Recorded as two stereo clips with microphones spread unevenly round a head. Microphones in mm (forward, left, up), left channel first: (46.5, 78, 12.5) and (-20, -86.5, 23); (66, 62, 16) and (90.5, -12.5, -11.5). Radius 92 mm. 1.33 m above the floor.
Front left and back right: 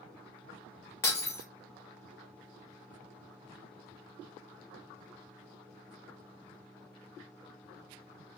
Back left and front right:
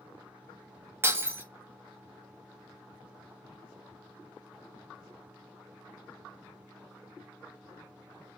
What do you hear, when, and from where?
1.0 s breaking glass: 5° right, 0.9 m